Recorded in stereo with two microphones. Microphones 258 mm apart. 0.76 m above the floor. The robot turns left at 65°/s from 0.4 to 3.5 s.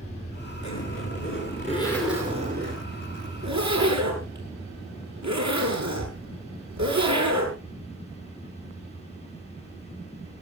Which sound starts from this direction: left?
A zipper, at 0.6 s.